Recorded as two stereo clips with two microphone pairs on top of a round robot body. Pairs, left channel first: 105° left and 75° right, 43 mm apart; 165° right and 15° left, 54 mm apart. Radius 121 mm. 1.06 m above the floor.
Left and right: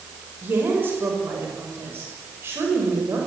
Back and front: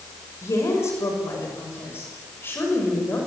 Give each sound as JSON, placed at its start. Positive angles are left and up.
{"t": 0.4, "sound": "a woman speaking", "azimuth_deg": -120, "distance_m": 6.5}